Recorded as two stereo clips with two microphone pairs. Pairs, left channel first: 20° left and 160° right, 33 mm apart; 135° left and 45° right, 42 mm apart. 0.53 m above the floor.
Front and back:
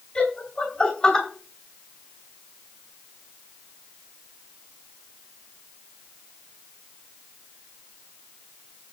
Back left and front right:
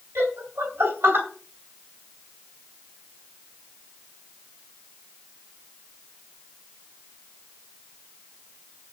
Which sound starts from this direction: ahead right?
Laughter, at 0.1 s.